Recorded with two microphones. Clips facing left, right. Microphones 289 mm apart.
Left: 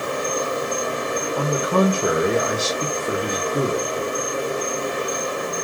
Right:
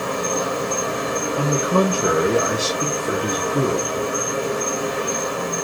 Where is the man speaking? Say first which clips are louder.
Right 1 dB; 5° right (ahead or behind), 0.6 m.